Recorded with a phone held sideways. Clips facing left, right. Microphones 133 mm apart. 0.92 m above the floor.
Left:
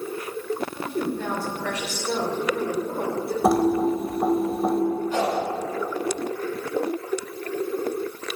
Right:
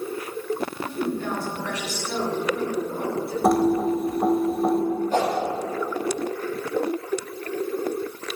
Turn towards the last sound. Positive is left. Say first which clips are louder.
# right 1 dB
turn(degrees=-45)  # may be behind; listen again after turning